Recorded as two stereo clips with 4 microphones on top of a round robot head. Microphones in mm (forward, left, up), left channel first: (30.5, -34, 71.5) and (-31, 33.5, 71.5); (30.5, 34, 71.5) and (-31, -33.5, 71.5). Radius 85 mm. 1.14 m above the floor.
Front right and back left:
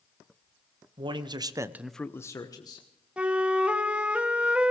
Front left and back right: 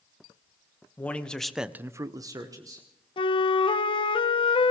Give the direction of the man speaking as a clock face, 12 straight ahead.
8 o'clock.